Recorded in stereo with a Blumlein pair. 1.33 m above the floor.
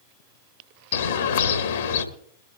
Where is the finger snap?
I don't hear a finger snap.